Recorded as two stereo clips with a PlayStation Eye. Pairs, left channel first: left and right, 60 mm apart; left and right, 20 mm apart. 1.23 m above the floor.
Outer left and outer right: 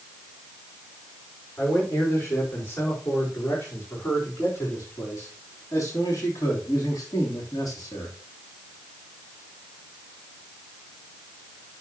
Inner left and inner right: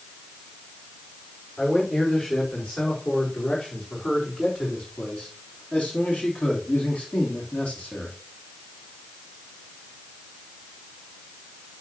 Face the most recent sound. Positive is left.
turn(degrees=85)